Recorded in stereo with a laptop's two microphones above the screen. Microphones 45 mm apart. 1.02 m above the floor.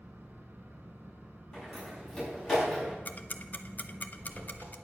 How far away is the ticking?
About 0.6 m.